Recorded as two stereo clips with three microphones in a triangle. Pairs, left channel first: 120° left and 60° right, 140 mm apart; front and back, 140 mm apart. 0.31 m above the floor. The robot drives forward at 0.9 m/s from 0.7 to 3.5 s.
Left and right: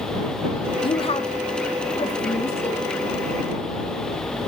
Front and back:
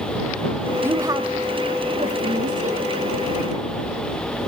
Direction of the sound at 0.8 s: 115° left.